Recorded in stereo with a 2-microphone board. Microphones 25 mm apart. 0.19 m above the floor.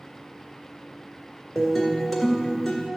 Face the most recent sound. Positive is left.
turn(degrees=5)  # may be behind; listen again after turning